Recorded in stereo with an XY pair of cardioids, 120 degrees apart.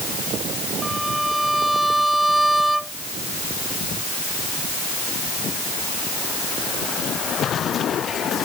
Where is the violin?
5° right.